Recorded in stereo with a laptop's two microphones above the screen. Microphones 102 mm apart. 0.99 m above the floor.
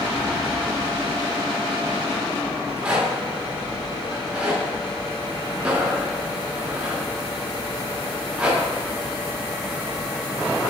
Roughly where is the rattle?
Centre.